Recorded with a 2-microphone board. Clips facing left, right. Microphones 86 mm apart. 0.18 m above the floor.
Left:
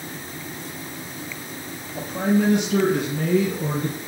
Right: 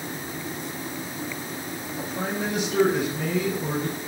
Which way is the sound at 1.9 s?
70° left (ahead or behind).